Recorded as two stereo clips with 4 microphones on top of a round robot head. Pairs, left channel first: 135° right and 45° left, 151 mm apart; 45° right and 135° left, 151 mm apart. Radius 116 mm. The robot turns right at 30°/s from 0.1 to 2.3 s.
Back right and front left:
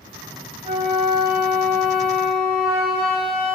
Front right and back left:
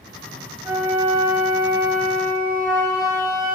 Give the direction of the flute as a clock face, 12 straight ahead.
10 o'clock.